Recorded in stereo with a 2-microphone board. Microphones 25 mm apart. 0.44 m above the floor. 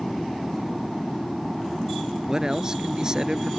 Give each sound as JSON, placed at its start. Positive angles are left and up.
{"t": 0.0, "sound": "an aircraft", "side_deg": -10}
{"t": 2.3, "sound": "a man speaking", "side_deg": -30}